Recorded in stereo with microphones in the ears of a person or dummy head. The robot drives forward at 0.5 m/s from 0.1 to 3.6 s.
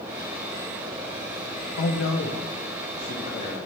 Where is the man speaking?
65° left (ahead or behind), 0.8 m; by 3.6 s 35° left (ahead or behind), 1.3 m.